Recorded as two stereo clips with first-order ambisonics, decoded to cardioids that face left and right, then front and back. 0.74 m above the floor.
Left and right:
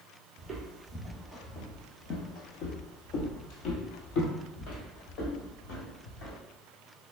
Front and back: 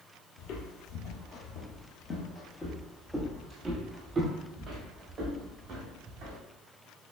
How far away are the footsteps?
About 1.3 m.